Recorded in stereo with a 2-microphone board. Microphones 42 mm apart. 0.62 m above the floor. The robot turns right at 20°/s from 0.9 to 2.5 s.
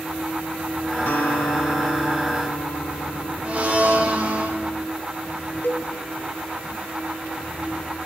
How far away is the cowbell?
About 1.2 m.